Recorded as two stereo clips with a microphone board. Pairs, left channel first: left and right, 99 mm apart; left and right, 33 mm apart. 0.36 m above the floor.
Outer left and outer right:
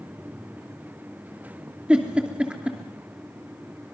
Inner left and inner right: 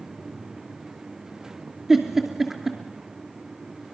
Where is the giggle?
10° right (ahead or behind), 2.5 m.